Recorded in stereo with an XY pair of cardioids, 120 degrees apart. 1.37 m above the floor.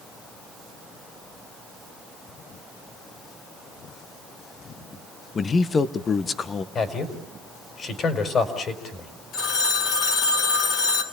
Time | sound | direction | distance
5.3 | a man speaking | 30° left | 1.2 m
6.8 | a man speaking | 40° left | 4.5 m
9.3 | a phone ringing | 60° left | 3.5 m